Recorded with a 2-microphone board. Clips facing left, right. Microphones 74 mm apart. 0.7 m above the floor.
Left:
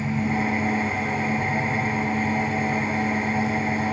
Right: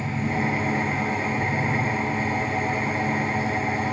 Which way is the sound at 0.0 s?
80° right.